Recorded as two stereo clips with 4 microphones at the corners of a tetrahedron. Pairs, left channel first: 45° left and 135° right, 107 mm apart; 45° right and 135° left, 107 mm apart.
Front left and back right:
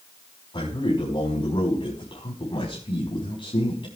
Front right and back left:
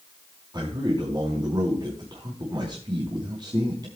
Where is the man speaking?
85° left, 4.5 m.